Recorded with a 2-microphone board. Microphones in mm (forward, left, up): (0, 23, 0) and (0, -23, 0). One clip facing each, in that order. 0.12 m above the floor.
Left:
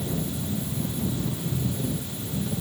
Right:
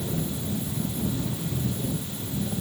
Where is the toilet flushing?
No toilet flushing in this recording.